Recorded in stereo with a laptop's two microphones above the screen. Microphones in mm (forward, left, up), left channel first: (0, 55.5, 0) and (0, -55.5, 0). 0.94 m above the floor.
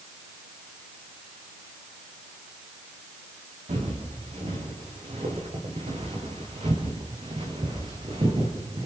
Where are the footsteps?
80° right, 6 m; by 8.9 s 55° right (ahead or behind), 4.5 m.